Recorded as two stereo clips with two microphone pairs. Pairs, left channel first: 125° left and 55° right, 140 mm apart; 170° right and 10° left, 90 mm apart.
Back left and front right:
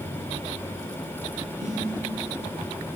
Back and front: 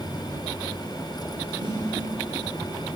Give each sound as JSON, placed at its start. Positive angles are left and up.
{"t": 1.6, "sound": "a snare drum", "azimuth_deg": -25, "distance_m": 2.0}